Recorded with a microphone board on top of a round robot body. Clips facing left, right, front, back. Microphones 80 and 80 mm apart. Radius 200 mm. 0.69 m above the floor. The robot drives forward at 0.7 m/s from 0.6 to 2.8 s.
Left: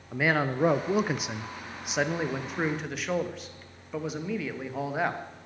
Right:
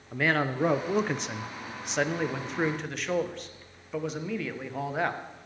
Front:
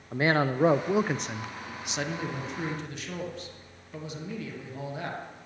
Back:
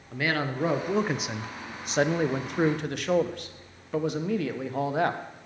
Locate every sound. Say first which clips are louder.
0.1 s a man speaking: left 1 dB, front 3 dB; 10° left, 0.9 m; by 5.2 s 175° left, 1.4 m